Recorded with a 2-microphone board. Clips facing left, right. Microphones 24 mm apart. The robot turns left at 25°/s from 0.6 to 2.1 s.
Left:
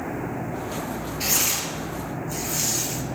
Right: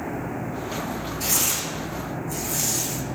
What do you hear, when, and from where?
1.2 s tearing paper: 45° left (ahead or behind), 1.3 m; by 3.0 s 20° left (ahead or behind), 1.3 m